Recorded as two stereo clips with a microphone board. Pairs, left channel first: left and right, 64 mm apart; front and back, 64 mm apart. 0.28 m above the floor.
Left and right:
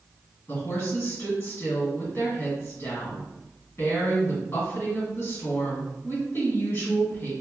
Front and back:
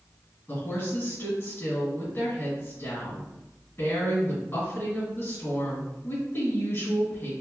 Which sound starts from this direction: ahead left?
A woman speaking, at 0.5 s.